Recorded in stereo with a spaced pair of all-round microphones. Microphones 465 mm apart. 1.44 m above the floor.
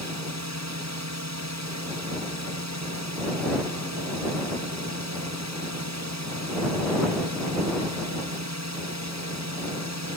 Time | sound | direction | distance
0.0 | a drone | 35° right (ahead or behind) | ?